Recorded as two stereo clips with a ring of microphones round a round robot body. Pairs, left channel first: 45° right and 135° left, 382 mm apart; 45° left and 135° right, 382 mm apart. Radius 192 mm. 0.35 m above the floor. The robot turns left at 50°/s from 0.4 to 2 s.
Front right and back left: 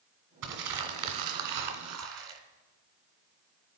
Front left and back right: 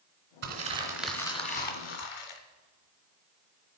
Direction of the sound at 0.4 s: 165° left.